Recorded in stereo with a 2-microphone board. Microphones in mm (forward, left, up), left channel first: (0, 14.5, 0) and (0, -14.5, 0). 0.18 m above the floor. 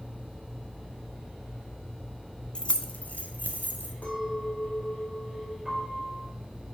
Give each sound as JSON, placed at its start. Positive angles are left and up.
{"t": 2.5, "sound": "keys jangling", "side_deg": 35, "distance_m": 0.8}
{"t": 4.0, "sound": "a clink", "side_deg": 55, "distance_m": 5.0}
{"t": 5.7, "sound": "a piano", "side_deg": -10, "distance_m": 4.0}